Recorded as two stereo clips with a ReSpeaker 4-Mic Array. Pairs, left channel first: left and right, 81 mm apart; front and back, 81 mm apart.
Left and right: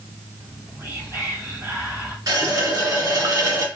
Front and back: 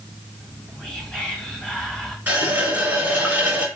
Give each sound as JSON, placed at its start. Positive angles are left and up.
{"t": 0.4, "sound": "whispering", "azimuth_deg": -70, "distance_m": 1.6}
{"t": 2.3, "sound": "a running tap", "azimuth_deg": -115, "distance_m": 1.2}